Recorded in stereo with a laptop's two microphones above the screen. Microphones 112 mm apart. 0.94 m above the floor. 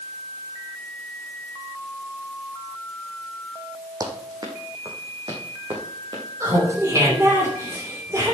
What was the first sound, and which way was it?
Running footsteps, 35° right (ahead or behind).